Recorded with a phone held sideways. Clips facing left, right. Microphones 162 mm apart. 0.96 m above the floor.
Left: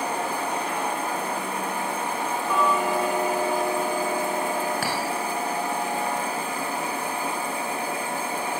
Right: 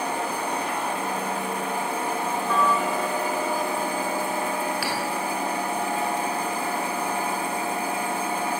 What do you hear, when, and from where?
2.5 s ticking: 15° left (ahead or behind), 3.5 m
4.8 s a clink: 45° left (ahead or behind), 3.5 m